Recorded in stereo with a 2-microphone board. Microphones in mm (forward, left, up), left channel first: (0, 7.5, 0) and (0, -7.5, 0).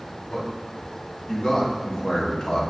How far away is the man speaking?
About 2.5 m.